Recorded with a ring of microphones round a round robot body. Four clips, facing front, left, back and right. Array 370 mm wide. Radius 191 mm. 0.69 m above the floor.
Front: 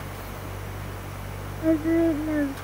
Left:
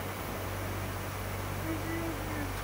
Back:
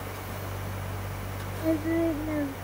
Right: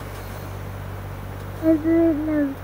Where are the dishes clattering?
No dishes clattering in this recording.